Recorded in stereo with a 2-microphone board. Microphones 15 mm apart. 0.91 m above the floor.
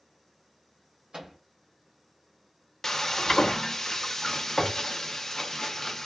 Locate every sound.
1.1 s a microwave: 65° right (ahead or behind), 1.3 m
2.8 s frying: 25° left (ahead or behind), 0.5 m